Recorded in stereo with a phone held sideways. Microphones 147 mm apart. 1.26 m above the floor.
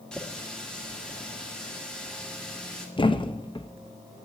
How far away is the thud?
About 0.6 m.